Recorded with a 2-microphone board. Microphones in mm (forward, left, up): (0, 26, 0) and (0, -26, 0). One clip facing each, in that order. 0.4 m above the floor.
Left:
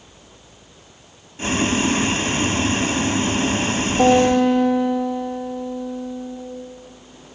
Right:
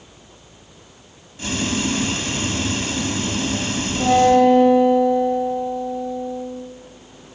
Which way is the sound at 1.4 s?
35° left (ahead or behind).